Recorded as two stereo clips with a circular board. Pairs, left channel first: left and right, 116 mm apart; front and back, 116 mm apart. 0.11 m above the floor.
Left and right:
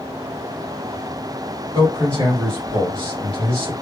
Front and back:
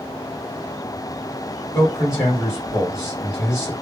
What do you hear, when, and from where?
1.7 s a man speaking: 95° right, 1.9 m